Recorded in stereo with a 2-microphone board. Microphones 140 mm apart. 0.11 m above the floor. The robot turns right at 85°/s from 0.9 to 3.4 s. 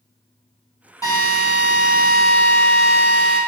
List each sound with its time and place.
1.0 s a drill: 25° left, 1.9 m; by 3.4 s 135° right, 1.9 m